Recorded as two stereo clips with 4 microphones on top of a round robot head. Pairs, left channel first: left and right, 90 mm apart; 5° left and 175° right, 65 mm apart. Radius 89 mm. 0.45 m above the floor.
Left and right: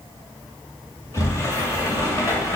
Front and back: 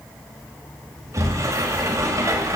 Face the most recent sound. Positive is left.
turn(degrees=145)